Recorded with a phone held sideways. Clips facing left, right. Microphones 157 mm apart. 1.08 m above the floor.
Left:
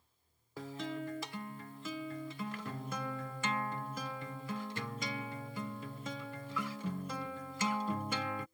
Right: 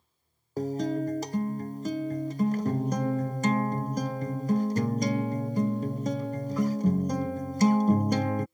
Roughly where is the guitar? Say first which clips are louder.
Right 12 dB; right.